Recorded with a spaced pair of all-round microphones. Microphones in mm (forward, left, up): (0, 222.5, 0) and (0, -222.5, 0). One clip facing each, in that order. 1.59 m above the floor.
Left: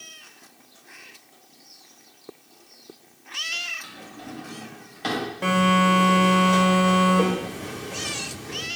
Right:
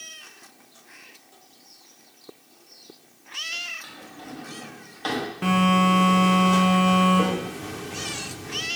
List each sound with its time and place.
3.8 s a drawer: 40° left (ahead or behind), 0.9 m
5.4 s a phone buzzing: 25° right (ahead or behind), 0.6 m